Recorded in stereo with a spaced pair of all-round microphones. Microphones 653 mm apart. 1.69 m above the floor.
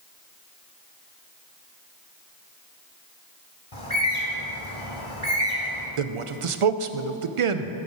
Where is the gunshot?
I don't hear a gunshot.